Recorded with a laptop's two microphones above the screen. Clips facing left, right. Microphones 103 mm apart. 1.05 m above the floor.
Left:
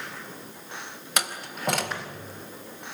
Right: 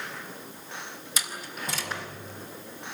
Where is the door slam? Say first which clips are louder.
Left 5 dB; 65° left (ahead or behind), 4 m.